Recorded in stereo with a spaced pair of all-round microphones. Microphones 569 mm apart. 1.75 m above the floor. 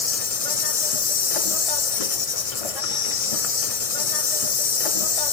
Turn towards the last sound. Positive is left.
turn(degrees=75)  # may be behind; listen again after turning